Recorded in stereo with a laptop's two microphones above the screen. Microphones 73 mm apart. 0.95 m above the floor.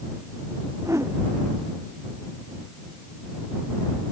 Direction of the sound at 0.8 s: 40° right (ahead or behind).